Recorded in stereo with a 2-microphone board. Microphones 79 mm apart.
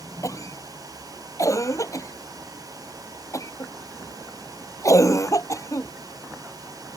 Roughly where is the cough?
Left.